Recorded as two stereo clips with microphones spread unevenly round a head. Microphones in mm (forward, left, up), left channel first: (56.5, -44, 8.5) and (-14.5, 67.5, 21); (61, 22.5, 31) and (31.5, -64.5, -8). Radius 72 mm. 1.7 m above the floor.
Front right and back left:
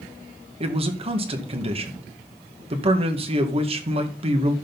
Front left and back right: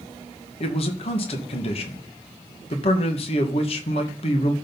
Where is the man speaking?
75° left, 1.8 m.